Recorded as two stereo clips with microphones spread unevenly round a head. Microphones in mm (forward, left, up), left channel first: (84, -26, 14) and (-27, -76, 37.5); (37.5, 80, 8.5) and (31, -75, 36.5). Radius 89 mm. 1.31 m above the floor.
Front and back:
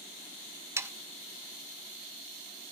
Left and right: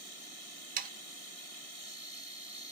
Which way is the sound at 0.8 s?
80° right.